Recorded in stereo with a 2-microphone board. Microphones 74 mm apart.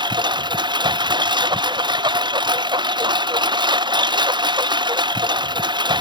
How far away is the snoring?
No snoring in this recording.